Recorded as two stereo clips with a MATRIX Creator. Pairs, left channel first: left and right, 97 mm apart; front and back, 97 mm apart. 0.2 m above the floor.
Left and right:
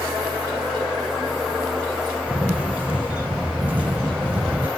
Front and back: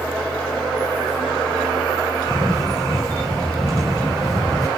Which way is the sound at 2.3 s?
155° right.